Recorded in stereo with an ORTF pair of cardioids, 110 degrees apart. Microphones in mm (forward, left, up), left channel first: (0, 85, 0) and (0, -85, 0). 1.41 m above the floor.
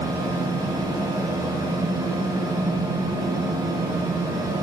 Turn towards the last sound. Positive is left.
turn(degrees=-20)